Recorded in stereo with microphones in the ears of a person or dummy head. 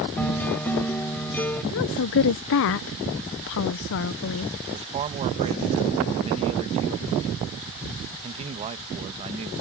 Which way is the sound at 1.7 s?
55° left (ahead or behind).